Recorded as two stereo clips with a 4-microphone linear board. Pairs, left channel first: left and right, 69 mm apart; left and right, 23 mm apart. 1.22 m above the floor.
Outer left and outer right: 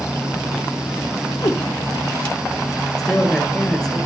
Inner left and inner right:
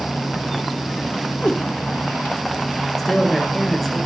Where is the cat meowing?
65° left (ahead or behind), 2 m.